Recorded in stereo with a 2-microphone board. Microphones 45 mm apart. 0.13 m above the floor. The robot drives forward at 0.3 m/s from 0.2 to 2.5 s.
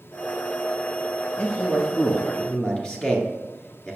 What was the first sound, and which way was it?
A man speaking, 30° left (ahead or behind).